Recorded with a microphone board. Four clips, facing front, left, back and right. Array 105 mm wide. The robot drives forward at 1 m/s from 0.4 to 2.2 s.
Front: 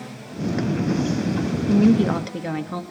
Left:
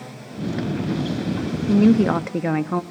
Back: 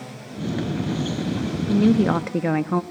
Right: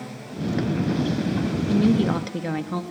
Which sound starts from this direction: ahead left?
A woman speaking, at 1.7 s.